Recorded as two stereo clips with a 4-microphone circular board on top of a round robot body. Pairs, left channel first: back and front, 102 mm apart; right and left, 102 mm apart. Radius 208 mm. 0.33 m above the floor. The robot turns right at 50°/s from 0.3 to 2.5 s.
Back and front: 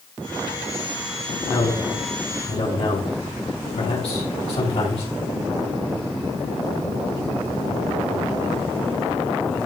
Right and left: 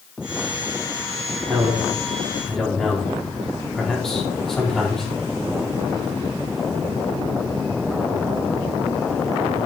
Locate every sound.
1.5 s a man speaking: 135° left, 4 m; by 5.1 s 175° right, 4 m